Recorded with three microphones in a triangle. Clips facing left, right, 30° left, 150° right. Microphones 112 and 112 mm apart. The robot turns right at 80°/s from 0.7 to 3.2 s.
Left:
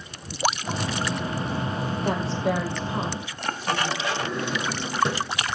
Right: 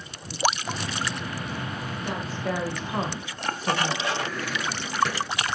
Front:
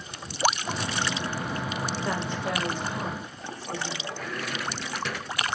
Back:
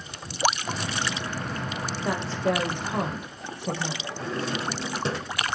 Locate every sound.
2.0 s a woman speaking: 130° left, 5 m; by 4.0 s 135° right, 5 m
4.2 s a drawer: 155° left, 1.4 m